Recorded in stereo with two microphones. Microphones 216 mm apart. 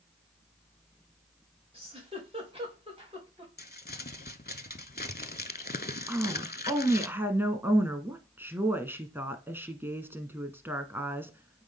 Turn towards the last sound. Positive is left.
turn(degrees=-10)  # may be behind; listen again after turning